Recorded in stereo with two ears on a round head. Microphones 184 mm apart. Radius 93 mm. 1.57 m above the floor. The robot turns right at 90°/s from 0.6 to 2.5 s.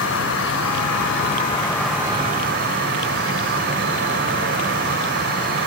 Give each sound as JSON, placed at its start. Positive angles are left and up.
{"t": 0.0, "sound": "an insect", "azimuth_deg": 65, "distance_m": 1.9}